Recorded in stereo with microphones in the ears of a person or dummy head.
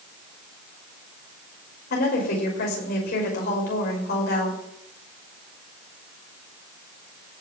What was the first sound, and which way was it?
A woman speaking, 55° left (ahead or behind).